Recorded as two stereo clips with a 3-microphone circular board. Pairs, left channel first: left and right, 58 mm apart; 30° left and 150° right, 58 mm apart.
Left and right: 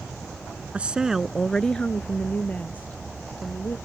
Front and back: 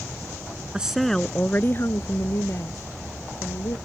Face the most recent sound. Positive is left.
turn(degrees=35)